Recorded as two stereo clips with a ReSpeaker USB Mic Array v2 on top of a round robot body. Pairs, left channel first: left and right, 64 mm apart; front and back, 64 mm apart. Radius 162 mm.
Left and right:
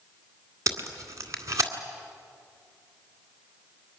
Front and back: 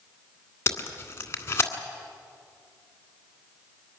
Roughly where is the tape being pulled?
Ahead right.